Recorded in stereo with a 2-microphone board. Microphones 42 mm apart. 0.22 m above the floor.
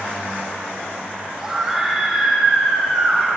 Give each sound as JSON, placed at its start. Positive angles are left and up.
{"t": 1.4, "sound": "a scream", "side_deg": -5, "distance_m": 10.0}